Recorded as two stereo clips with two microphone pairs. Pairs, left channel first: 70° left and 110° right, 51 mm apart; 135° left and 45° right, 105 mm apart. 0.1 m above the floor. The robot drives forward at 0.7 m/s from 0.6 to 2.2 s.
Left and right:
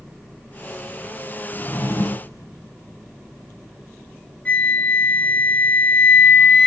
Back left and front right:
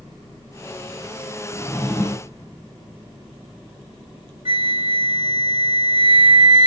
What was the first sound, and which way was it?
A drawer, 70° left.